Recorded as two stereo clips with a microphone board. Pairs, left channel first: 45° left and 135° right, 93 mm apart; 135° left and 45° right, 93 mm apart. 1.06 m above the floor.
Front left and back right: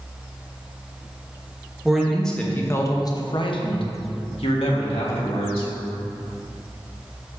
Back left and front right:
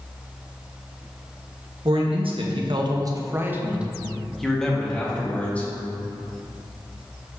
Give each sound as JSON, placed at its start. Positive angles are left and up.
{"t": 1.9, "sound": "a man speaking", "azimuth_deg": -50, "distance_m": 1.1}